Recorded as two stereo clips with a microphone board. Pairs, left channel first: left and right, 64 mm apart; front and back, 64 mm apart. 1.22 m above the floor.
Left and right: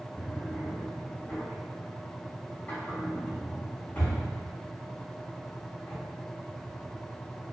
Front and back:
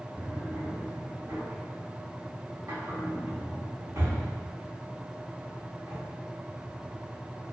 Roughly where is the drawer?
Behind left.